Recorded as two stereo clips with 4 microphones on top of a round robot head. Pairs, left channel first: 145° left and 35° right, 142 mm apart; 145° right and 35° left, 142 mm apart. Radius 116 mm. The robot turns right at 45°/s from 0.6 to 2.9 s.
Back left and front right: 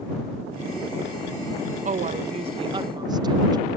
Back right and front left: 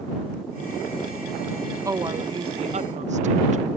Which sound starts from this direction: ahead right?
A woman speaking, at 1.9 s.